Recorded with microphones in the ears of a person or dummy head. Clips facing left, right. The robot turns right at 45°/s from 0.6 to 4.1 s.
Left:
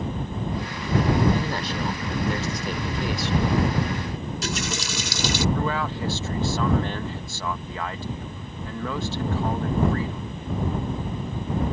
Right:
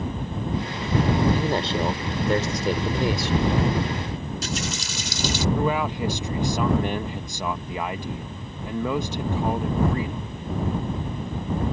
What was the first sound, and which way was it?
A man speaking, 165° right.